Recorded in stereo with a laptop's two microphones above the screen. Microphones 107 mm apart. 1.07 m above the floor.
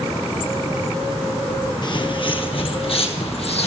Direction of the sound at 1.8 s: 45° left (ahead or behind).